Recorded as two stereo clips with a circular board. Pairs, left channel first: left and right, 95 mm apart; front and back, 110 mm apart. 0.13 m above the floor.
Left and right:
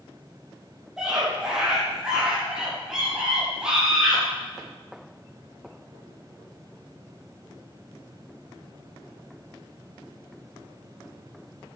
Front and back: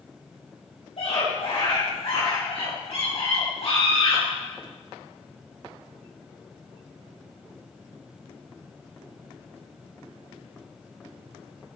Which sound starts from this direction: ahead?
A scream, at 1.0 s.